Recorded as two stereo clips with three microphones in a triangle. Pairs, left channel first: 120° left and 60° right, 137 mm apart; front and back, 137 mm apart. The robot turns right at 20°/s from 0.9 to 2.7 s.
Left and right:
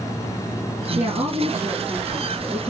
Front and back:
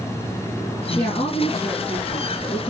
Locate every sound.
0.9 s a woman speaking: 45° right, 2 m; by 2.7 s 10° right, 2 m